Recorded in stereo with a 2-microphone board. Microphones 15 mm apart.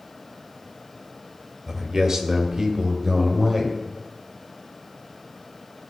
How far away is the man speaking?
About 1.9 m.